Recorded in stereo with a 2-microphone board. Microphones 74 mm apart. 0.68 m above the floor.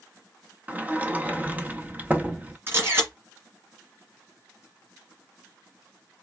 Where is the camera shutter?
30° right (ahead or behind), 2 m.